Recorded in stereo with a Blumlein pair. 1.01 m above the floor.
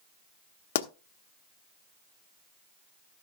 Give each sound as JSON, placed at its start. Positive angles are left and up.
{"t": 0.8, "sound": "a pop", "azimuth_deg": 55, "distance_m": 0.7}